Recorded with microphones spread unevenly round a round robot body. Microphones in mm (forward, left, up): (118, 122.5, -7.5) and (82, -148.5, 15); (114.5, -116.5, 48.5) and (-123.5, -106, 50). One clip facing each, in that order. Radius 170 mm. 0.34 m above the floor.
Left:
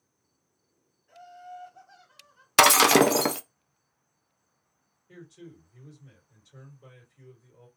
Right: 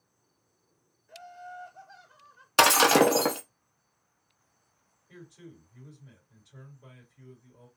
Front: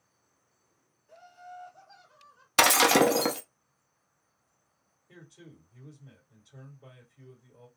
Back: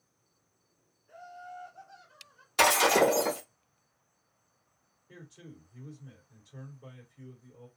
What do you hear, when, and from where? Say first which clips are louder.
1.1 s laughter: even, back 2 dB; 110° left, 1.4 m
2.6 s breaking glass: left 1 dB, front 2 dB; 20° left, 0.6 m
5.1 s a man speaking: left 2 dB, back 2 dB; 90° left, 1.9 m